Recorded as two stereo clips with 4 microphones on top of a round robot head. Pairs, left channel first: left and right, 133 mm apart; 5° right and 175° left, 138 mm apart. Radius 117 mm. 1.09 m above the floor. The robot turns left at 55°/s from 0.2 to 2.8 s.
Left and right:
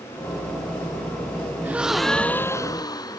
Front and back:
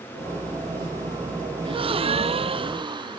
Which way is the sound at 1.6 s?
160° right.